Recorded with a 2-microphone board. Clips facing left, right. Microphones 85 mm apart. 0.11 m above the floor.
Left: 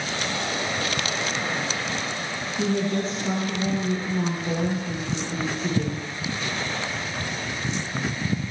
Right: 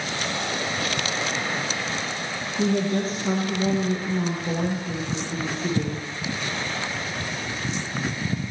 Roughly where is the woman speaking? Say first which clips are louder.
Right 2 dB; centre.